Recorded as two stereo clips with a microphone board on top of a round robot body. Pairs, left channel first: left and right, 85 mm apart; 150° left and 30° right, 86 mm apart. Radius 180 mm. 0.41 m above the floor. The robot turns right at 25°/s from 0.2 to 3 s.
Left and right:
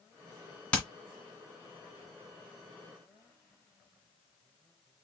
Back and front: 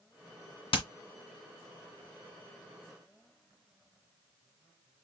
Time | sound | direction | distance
0.7 | hammering | 165° left | 2 m